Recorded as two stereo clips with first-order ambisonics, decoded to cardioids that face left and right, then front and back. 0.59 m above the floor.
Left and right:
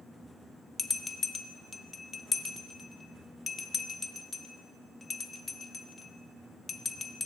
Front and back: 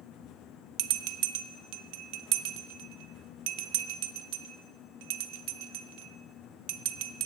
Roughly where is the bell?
Behind.